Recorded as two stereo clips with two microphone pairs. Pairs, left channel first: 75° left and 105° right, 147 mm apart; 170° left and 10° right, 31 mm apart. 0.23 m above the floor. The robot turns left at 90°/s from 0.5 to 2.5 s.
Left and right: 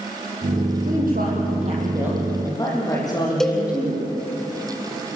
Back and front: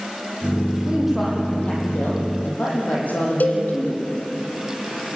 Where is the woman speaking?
70° right, 9.5 m; by 4.0 s 140° left, 9.5 m.